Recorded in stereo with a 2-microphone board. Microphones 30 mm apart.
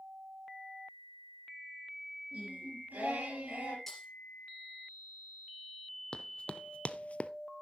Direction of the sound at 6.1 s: 35° left (ahead or behind).